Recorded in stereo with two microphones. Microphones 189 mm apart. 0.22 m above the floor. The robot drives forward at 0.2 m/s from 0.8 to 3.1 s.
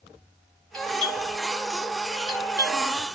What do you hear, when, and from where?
0.7 s a doorbell: 25° right (ahead or behind), 1.4 m